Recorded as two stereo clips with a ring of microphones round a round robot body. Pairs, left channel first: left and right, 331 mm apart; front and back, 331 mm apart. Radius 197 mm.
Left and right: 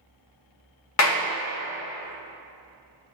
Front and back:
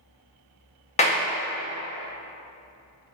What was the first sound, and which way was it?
A clap, 65° left.